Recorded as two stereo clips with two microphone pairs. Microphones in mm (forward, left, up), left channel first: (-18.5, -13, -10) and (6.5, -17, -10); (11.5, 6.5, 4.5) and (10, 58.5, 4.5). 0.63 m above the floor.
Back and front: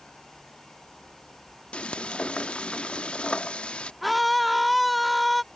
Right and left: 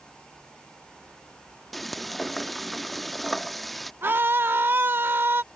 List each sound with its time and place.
1.7 s frying: straight behind
4.0 s a scream: 90° left